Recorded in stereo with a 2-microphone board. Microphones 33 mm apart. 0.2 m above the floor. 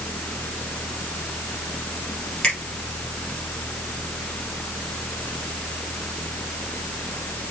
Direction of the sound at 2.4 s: 30° left (ahead or behind).